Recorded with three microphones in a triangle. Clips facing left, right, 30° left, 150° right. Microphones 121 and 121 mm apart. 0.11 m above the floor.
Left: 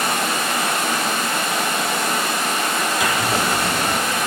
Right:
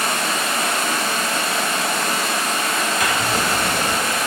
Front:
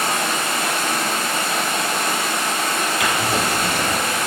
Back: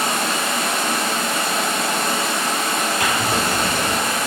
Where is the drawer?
170° left, 1.7 m.